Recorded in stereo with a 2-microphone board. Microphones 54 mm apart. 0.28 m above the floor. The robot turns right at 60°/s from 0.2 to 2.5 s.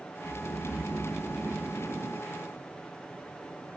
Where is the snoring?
120° left, 0.6 m; by 2.3 s 120° right, 0.6 m.